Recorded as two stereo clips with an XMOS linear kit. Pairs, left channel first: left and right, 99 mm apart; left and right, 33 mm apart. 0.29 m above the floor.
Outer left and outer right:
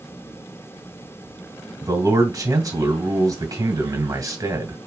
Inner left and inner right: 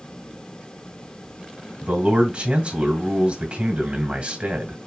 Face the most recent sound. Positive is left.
turn(degrees=-35)  # may be behind; listen again after turning